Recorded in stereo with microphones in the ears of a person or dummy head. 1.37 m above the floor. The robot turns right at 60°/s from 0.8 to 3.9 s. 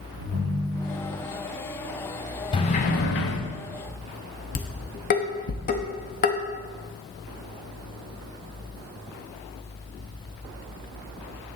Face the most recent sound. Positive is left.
turn(degrees=40)  # may be behind; listen again after turning